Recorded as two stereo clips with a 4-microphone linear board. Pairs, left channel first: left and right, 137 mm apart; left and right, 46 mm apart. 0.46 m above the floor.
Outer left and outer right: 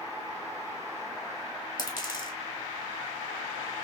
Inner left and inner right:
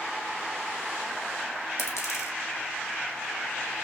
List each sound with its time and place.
1.8 s a dropped coin: 75° left (ahead or behind), 1.4 m